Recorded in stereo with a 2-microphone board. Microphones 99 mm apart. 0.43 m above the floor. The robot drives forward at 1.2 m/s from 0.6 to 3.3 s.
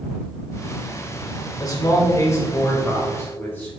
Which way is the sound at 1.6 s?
40° left (ahead or behind).